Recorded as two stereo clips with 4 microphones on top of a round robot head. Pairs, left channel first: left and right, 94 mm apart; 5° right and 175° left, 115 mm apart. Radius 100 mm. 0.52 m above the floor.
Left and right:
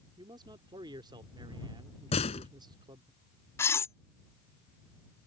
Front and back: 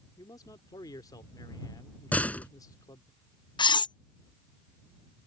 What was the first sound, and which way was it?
A man speaking, 60° right.